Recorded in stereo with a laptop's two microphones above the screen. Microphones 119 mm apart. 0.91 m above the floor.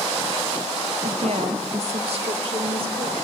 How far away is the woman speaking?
About 1.3 m.